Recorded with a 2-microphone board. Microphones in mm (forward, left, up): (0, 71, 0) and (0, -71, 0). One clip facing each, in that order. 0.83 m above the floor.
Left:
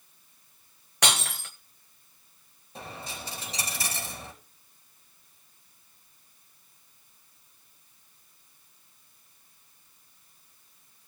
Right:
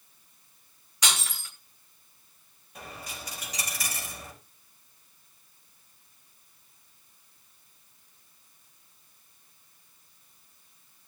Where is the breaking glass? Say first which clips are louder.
Left 4 dB; 65° left (ahead or behind), 1.8 m.